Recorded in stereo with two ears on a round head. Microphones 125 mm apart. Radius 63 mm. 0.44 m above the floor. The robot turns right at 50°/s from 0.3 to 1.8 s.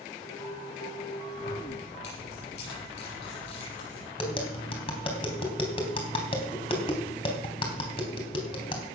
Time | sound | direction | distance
1.4 | keys jangling | 55° left (ahead or behind) | 9.5 m
4.2 | tapping | 40° left (ahead or behind) | 3.5 m